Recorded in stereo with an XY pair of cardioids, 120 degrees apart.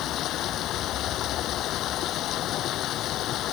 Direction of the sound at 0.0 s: 65° left.